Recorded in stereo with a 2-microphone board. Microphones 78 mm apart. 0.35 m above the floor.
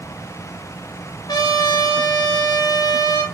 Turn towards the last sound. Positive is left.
turn(degrees=70)  # may be behind; listen again after turning